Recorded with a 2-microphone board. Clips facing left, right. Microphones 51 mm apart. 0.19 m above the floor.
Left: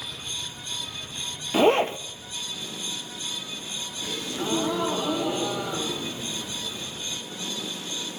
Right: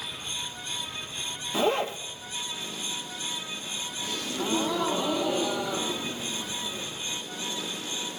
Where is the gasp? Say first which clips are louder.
Left 1 dB; 15° left (ahead or behind), 3.5 m.